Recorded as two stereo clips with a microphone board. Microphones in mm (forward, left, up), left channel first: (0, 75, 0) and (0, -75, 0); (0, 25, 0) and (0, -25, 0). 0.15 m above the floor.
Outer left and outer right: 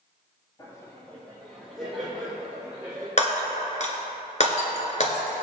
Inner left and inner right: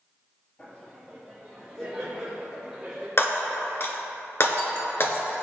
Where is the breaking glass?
50° left (ahead or behind), 1.4 m.